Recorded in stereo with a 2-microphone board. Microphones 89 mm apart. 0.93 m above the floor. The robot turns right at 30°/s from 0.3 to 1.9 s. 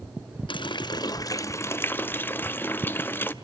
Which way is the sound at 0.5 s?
115° left.